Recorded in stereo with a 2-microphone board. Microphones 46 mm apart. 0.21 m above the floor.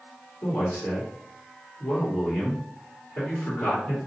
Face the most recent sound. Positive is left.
turn(degrees=50)  # may be behind; listen again after turning